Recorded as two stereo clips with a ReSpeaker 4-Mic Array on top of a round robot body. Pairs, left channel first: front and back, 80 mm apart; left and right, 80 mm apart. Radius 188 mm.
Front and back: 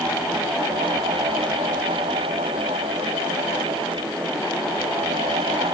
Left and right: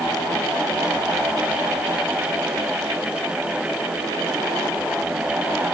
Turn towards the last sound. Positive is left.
No sound to turn to.